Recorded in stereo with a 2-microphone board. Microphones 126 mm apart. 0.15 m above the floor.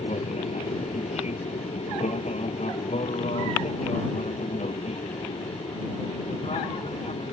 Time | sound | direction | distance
0.0 | an aircraft | 60° left (ahead or behind) | ?